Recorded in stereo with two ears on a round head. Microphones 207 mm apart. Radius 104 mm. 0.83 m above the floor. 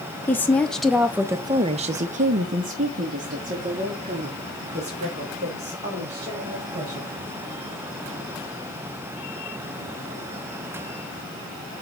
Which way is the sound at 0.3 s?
10° left (ahead or behind).